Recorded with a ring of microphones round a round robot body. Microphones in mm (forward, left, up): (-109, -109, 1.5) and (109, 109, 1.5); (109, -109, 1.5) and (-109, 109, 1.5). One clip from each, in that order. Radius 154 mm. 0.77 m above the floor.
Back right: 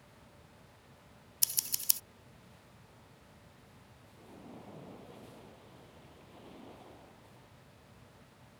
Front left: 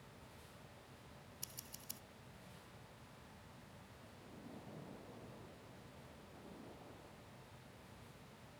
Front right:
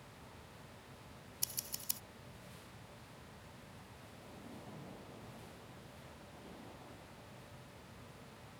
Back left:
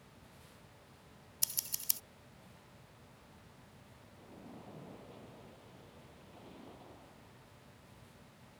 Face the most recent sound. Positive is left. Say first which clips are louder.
# back right 6 dB, back left 1 dB
turn(degrees=-145)